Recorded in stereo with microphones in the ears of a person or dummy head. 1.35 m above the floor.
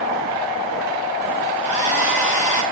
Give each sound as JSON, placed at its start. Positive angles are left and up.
{"t": 1.6, "sound": "a hair dryer", "side_deg": 35, "distance_m": 1.6}